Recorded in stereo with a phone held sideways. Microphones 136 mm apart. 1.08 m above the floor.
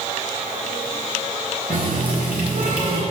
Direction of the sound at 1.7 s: 80° right.